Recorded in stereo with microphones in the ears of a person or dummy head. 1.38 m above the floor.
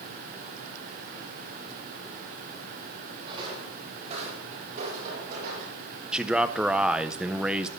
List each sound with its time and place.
3.2 s footsteps: 25° right (ahead or behind), 3.5 m; by 5.7 s 55° right (ahead or behind), 4 m
6.1 s a man speaking: 5° right (ahead or behind), 0.5 m